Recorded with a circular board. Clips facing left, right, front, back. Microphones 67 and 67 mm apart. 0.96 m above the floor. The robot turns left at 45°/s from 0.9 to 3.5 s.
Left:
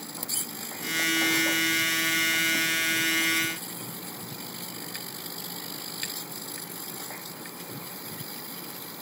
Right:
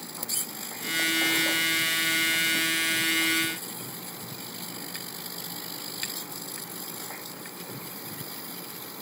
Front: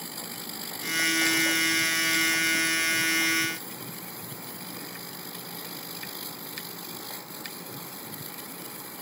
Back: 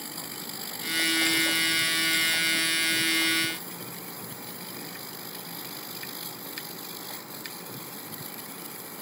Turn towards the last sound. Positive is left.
No sound to turn to.